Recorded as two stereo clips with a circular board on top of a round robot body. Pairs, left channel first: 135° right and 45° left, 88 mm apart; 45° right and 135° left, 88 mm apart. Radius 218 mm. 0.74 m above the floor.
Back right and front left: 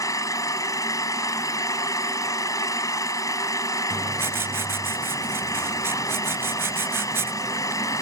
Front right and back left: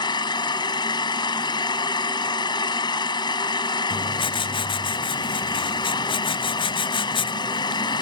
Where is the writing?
20° right.